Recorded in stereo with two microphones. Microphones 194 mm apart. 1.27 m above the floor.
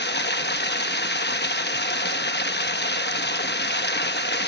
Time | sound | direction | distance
0.0 | running water | 60° left (ahead or behind) | 0.9 m